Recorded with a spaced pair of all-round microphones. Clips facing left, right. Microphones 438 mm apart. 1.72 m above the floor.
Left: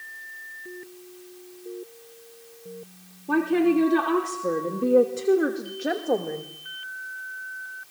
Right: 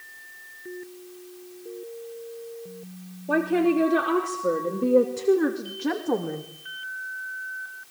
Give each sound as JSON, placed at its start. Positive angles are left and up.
{"t": 3.3, "sound": "a woman speaking", "side_deg": 15, "distance_m": 3.5}